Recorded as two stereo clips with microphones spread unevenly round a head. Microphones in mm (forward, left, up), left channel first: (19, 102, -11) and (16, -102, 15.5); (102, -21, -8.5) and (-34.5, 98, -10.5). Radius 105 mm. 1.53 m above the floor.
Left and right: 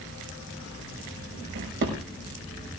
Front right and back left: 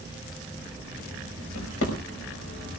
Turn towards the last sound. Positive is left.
turn(degrees=-60)